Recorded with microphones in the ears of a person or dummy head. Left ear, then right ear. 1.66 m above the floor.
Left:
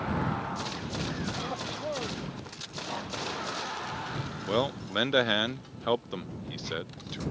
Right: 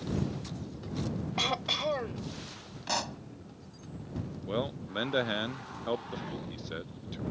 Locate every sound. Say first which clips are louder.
1.4 s throat clearing: right 5 dB; 80° right
2.9 s a pop: right 5 dB; 85° right
4.5 s a man speaking: left 6 dB; 25° left (ahead or behind)